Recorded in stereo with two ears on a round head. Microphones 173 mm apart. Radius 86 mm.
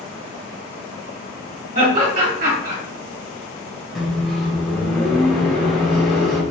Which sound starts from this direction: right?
Laughter, at 1.8 s.